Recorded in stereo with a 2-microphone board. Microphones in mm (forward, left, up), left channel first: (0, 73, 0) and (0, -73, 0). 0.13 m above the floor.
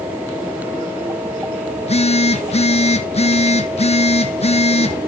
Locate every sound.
1.8 s a phone buzzing: 45° left (ahead or behind), 1.1 m